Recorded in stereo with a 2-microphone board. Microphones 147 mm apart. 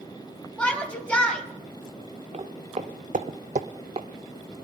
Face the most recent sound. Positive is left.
turn(degrees=-35)  # may be behind; listen again after turning